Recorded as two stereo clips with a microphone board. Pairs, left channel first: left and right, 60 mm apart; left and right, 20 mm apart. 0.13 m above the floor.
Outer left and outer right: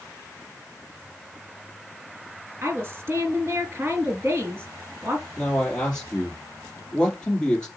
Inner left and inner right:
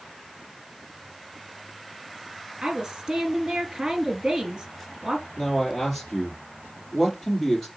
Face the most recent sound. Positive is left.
turn(degrees=15)  # may be behind; listen again after turning